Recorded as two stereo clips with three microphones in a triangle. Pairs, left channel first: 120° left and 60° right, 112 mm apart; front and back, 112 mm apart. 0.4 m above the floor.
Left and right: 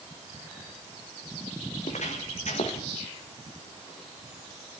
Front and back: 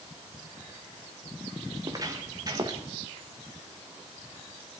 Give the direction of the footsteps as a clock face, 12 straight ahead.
8 o'clock.